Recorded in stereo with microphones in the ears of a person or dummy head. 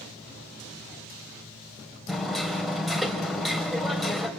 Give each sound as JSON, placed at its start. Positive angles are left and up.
{"t": 2.1, "sound": "hammering", "side_deg": 0, "distance_m": 2.5}